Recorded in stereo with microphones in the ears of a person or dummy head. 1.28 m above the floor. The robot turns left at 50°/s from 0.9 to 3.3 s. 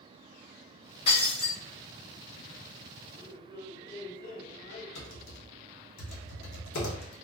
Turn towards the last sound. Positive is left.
turn(degrees=65)  # may be behind; listen again after turning